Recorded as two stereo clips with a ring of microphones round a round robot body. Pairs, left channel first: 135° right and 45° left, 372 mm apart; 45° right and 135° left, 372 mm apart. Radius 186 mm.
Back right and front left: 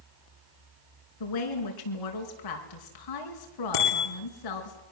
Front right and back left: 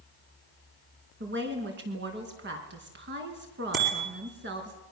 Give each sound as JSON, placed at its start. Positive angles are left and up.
{"t": 1.2, "sound": "a woman speaking", "azimuth_deg": -165, "distance_m": 5.0}
{"t": 3.7, "sound": "a bicycle bell", "azimuth_deg": -160, "distance_m": 7.5}